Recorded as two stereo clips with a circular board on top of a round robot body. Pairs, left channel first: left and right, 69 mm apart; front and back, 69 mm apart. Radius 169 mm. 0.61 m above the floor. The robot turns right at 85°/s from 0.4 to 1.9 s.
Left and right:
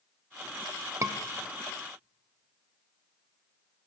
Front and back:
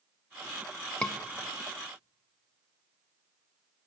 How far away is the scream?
About 0.7 m.